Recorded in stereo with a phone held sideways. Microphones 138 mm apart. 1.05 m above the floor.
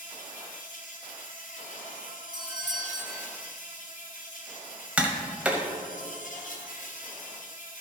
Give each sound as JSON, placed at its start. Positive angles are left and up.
{"t": 0.0, "sound": "an insect", "side_deg": 75, "distance_m": 1.2}
{"t": 2.3, "sound": "a doorbell", "side_deg": -30, "distance_m": 0.7}
{"t": 5.0, "sound": "tapping", "side_deg": -10, "distance_m": 1.1}